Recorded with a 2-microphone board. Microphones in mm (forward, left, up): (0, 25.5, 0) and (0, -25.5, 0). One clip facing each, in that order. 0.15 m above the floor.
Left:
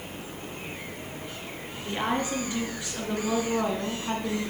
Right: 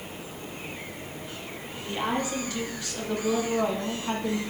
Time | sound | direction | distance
1.9 | a woman speaking | 30° left (ahead or behind) | 2.5 m